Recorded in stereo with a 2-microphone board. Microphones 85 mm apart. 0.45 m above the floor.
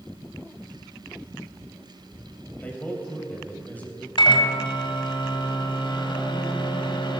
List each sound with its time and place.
2.6 s a man speaking: 20° left (ahead or behind), 3 m
4.2 s a microwave: 70° left (ahead or behind), 1.6 m